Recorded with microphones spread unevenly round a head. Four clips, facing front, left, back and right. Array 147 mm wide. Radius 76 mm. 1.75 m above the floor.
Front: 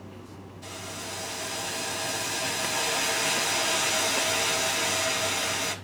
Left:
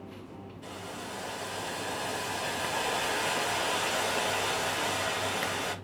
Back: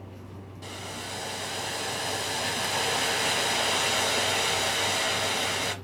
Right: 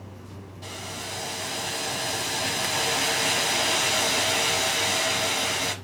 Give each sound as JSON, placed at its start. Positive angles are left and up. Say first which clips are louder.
{"t": 0.6, "sound": "boiling", "louder": "right 3 dB, back 1 dB", "azimuth_deg": -105, "distance_m": 1.1}